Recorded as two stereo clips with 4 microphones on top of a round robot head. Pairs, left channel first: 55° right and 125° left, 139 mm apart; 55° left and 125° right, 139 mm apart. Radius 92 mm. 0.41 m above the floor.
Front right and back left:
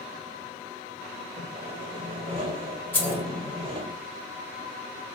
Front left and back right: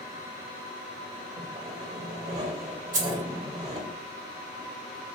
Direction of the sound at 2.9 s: 130° right.